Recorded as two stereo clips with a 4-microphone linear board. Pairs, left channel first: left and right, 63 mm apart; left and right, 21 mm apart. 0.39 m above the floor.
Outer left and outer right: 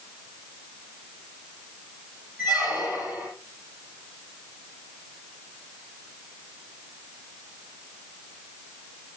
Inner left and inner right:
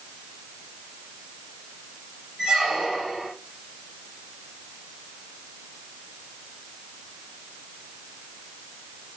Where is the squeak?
25° right (ahead or behind), 5.5 m.